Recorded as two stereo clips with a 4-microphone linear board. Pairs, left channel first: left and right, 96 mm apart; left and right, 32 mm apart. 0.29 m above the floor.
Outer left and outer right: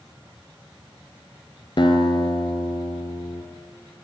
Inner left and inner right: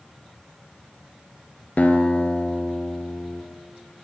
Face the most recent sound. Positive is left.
turn(degrees=55)  # may be behind; listen again after turning